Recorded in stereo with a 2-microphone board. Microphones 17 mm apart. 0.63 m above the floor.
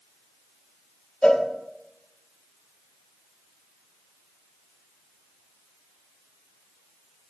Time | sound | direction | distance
1.2 | a cowbell | 75° left (ahead or behind) | 1.0 m